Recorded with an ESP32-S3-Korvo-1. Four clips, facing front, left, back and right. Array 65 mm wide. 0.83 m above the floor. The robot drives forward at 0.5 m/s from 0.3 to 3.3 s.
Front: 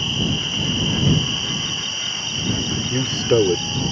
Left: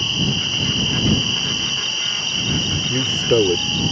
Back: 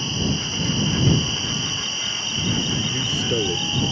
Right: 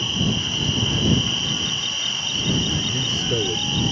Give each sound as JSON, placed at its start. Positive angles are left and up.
{"t": 0.0, "sound": "an insect", "azimuth_deg": 80}
{"t": 2.9, "sound": "a man speaking", "azimuth_deg": 45}